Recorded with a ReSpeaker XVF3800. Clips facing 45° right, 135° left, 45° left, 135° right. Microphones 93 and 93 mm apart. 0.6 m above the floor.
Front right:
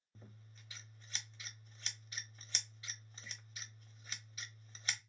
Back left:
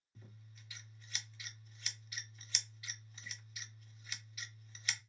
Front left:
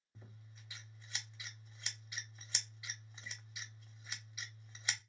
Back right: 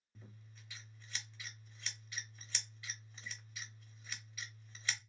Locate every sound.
0.1 s scissors: 20° right, 0.9 m